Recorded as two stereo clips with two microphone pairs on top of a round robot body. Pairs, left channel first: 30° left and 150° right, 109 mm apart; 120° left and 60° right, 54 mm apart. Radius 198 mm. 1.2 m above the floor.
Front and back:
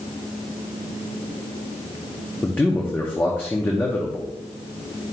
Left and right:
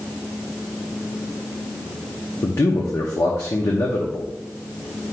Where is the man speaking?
105° left, 0.9 m.